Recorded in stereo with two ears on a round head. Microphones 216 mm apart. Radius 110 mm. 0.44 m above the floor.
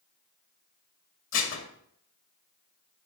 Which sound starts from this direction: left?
Dishes clattering, at 1.3 s.